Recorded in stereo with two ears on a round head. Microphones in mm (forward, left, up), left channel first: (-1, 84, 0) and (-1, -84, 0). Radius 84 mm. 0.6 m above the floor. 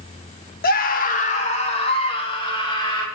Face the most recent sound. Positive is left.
turn(degrees=25)  # may be behind; listen again after turning